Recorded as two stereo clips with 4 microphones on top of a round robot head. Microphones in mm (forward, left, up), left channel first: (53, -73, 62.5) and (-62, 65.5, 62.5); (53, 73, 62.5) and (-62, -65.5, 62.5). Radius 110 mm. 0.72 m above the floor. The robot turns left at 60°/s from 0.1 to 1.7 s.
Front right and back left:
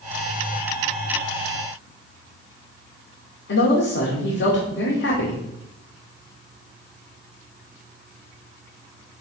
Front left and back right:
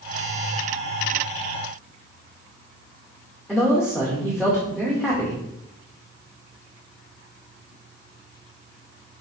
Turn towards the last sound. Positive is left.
turn(degrees=-40)